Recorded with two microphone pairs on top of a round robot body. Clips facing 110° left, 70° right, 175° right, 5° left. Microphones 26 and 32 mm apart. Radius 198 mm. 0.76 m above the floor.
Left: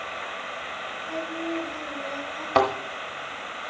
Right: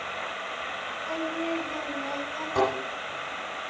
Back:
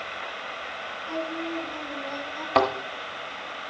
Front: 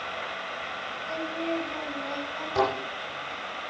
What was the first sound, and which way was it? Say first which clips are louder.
Singing: right 1 dB, even; 45° right.